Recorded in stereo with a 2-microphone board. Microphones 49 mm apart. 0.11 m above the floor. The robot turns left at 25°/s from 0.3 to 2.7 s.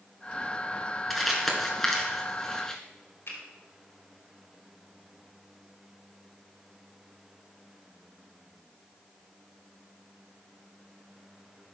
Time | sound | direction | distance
1.1 | crumpling | centre (ahead or behind) | 1.7 m
3.3 | a finger snap | 65° left (ahead or behind) | 3.5 m